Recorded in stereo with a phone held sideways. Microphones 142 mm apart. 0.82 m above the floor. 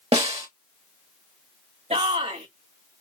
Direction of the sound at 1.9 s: 55° right (ahead or behind).